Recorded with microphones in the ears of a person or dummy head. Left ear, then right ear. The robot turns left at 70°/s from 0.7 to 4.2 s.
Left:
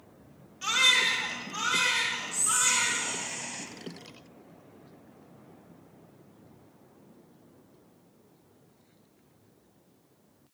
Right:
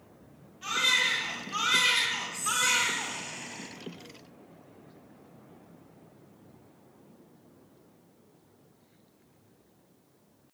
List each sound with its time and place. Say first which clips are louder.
0.6 s a baby crying: left 3 dB; 35° left, 1.3 m; by 3.2 s 135° right, 1.3 m
2.3 s whispering: even; 175° left, 0.6 m; by 3.7 s 80° left, 0.6 m